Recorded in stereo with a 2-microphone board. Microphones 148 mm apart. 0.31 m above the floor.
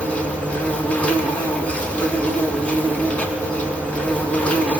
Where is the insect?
10° left (ahead or behind), 5 m.